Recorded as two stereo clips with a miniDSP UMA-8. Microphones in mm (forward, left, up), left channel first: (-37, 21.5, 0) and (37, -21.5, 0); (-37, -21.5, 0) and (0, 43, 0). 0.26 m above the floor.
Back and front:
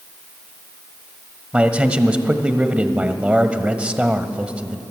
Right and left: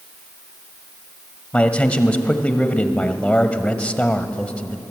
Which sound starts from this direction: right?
A man speaking, at 1.5 s.